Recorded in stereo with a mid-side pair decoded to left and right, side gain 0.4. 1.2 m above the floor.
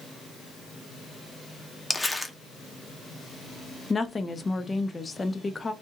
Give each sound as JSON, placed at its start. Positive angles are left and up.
{"t": 1.9, "sound": "crumpling", "azimuth_deg": 5, "distance_m": 0.7}
{"t": 3.9, "sound": "a woman speaking", "azimuth_deg": 25, "distance_m": 0.6}